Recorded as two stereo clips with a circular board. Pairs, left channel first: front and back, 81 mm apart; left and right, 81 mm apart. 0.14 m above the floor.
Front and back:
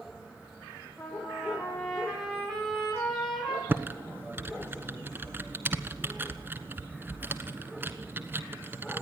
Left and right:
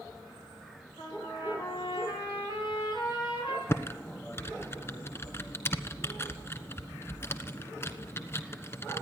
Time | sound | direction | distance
1.0 | a trumpet | 85° left | 9 m
3.7 | typing on a keyboard | 130° left | 1.2 m